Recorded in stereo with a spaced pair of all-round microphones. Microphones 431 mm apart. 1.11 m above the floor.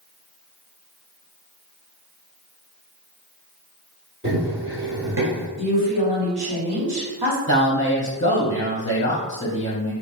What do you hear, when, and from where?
4.2 s running footsteps: 25° right (ahead or behind), 1.6 m; by 5.5 s 30° right (ahead or behind), 1.2 m
5.6 s a woman speaking: 65° right (ahead or behind), 1.6 m
7.5 s a man speaking: 40° left (ahead or behind), 0.6 m